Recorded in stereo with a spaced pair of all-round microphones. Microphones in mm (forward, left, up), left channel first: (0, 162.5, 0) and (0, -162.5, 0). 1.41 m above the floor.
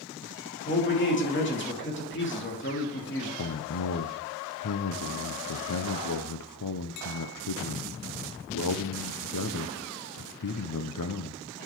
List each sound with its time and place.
0.7 s a man speaking: 35° left (ahead or behind), 2.5 m
3.4 s a man speaking: 75° left (ahead or behind), 0.7 m